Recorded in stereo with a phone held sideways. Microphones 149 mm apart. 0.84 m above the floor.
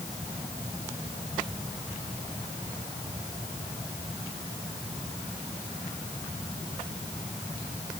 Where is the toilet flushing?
No toilet flushing in this recording.